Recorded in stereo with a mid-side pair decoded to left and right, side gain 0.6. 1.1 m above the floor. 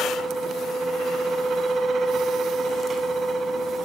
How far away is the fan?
About 1.4 m.